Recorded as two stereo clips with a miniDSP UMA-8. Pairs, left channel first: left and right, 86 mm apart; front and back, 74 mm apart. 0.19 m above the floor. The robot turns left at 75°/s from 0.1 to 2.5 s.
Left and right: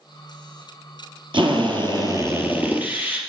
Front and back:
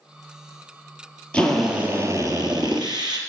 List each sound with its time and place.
1.3 s a drill: 75° right, 3 m; by 3.2 s 160° right, 3 m